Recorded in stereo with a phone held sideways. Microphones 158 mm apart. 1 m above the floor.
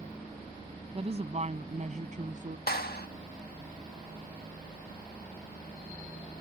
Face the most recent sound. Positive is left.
turn(degrees=75)  # may be behind; listen again after turning